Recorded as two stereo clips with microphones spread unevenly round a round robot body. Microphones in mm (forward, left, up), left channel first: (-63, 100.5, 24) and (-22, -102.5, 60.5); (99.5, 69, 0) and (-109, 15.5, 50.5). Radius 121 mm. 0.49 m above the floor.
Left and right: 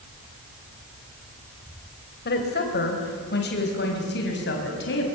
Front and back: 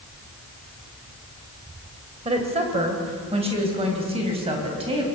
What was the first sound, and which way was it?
A woman speaking, 130° left.